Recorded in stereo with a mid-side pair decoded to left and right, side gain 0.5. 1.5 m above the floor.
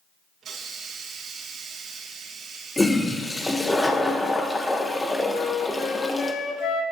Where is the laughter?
No laughter in this recording.